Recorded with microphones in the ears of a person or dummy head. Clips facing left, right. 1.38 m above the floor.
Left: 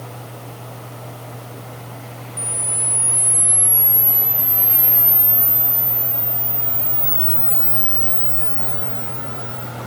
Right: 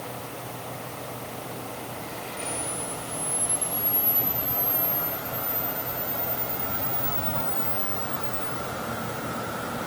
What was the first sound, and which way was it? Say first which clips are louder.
A camera shutter: right 1 dB; 45° left (ahead or behind).